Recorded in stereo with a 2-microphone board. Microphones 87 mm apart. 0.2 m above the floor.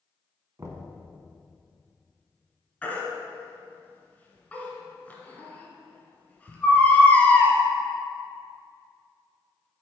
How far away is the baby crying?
About 1.4 m.